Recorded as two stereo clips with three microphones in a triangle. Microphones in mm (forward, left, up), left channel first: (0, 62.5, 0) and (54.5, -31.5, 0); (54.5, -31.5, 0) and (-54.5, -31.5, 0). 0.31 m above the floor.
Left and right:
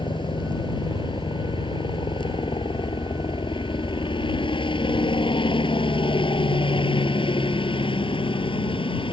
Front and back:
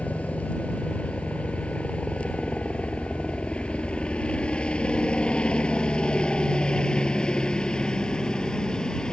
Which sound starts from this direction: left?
A helicopter, at 0.0 s.